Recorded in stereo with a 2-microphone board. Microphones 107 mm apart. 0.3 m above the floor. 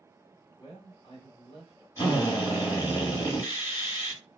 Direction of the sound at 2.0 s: 30° left (ahead or behind).